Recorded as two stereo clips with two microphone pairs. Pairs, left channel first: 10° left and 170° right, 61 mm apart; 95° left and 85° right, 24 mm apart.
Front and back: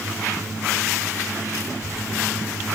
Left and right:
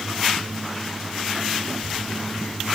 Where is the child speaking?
35° left, 3 m.